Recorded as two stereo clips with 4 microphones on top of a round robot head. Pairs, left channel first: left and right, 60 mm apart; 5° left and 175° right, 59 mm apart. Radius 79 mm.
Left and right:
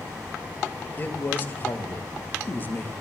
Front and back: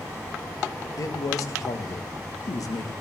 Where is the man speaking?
30° left, 1.5 m.